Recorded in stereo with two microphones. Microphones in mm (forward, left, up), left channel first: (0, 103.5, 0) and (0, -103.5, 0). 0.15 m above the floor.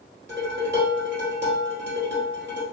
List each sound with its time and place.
0.3 s dishes clattering: 60° right (ahead or behind), 1.8 m